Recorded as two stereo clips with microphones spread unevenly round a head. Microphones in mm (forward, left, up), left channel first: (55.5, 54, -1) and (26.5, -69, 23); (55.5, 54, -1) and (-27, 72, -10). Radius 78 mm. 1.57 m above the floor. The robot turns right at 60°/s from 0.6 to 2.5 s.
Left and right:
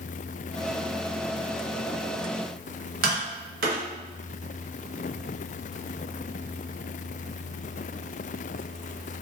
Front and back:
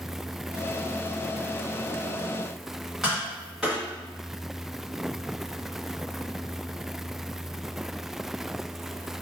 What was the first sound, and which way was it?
Tapping, 105° right.